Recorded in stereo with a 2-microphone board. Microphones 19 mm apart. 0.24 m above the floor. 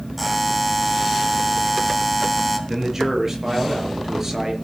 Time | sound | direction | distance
0.2 | a buzzer | centre (ahead or behind) | 2.5 m
2.7 | a man speaking | 25° right (ahead or behind) | 5 m